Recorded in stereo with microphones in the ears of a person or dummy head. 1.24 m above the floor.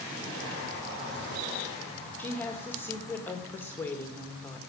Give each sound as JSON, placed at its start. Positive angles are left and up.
{"t": 2.2, "sound": "a woman speaking", "side_deg": 10, "distance_m": 1.6}